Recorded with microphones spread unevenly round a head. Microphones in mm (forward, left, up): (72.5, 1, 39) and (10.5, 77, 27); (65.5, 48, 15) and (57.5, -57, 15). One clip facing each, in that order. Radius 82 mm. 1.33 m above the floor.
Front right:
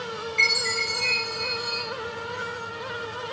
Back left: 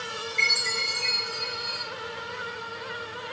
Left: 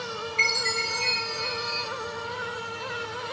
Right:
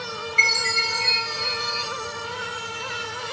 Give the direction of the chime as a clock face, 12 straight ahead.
4 o'clock.